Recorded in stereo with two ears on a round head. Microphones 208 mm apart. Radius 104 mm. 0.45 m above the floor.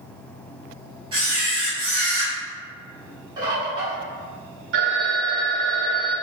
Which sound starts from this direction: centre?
A bird, at 3.4 s.